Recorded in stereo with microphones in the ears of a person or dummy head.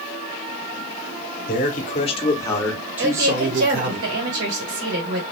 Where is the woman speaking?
65° right (ahead or behind), 1.9 m.